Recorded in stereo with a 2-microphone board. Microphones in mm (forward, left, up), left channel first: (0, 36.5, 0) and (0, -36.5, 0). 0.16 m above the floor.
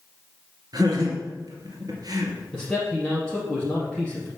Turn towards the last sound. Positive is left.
turn(degrees=5)  # may be behind; listen again after turning